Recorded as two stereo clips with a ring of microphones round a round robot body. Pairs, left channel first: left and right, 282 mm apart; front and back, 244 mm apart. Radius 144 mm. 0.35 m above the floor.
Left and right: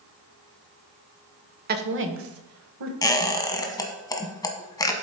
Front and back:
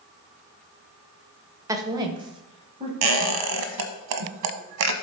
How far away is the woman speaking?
About 0.9 m.